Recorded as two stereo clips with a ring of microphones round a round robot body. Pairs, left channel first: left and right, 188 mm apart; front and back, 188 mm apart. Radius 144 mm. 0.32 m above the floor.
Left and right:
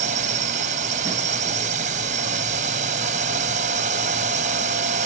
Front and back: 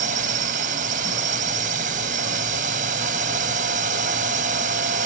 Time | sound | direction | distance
0.0 | a drone | 135° right | ?